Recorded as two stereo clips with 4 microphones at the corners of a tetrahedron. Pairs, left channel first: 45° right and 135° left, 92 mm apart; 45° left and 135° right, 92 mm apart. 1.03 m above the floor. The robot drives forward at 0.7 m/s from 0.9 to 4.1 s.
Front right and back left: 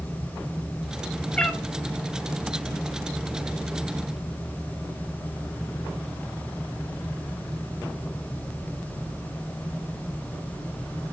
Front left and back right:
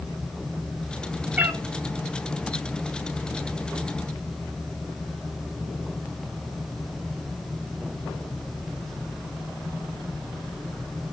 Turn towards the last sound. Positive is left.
turn(degrees=-170)